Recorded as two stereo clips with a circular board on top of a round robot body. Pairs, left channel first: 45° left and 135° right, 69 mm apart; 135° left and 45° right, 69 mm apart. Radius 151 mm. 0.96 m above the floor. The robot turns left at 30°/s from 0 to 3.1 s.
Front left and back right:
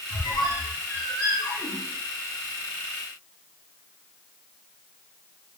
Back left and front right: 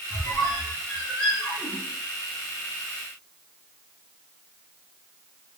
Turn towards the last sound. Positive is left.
turn(degrees=-15)